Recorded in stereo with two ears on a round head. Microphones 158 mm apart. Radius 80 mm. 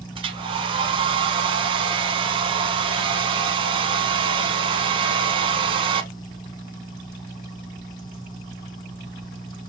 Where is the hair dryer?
30° right (ahead or behind), 0.6 m.